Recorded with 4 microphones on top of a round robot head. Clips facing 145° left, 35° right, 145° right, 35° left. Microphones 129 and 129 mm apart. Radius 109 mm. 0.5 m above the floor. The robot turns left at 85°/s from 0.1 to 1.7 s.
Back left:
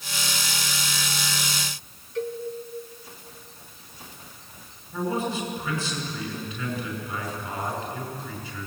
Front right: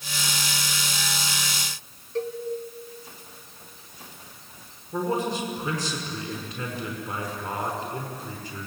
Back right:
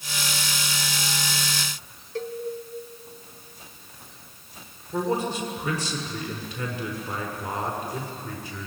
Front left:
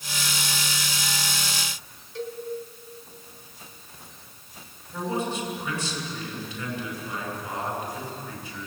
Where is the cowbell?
95° right, 1.2 m.